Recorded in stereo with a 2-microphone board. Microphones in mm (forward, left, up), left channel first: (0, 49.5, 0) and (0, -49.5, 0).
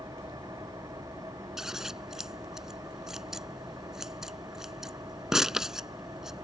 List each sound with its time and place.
0.0 s an engine running: 35° right (ahead or behind)
1.6 s scissors: 5° right (ahead or behind)